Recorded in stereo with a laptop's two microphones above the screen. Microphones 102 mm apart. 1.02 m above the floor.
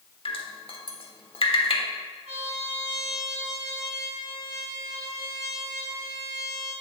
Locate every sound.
0.2 s dripping: 60° left (ahead or behind), 1.3 m
2.2 s a trumpet: 90° right, 5.5 m